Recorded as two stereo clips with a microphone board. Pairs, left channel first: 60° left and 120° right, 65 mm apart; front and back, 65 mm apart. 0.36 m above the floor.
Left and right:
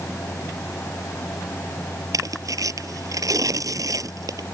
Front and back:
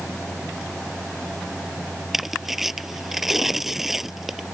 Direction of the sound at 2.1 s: 95° right.